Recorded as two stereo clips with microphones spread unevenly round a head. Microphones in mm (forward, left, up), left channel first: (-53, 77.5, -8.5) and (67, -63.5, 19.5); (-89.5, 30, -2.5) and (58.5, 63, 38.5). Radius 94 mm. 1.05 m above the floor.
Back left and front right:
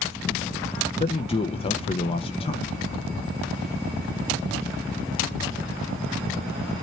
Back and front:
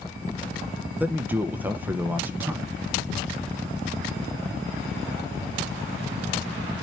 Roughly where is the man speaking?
Left.